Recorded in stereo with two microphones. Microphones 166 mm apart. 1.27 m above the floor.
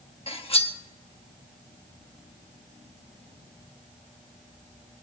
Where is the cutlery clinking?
35° left (ahead or behind), 0.8 m.